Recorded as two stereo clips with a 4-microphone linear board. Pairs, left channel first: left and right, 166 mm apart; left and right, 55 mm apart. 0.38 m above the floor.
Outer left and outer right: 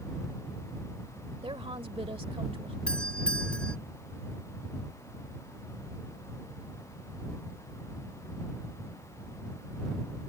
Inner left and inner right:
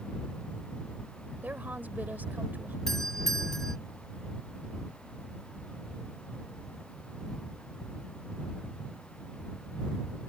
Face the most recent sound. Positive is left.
turn(degrees=5)  # may be behind; listen again after turning